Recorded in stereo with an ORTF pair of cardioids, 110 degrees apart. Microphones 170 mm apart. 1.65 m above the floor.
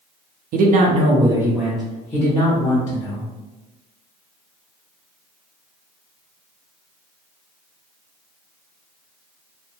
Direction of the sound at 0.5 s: 60° right.